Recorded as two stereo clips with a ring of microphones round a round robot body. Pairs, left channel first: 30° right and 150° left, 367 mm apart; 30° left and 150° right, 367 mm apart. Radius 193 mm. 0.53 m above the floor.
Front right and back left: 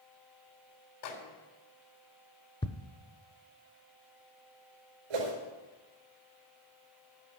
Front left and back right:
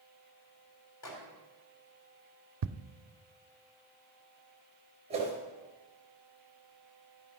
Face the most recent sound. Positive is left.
turn(degrees=135)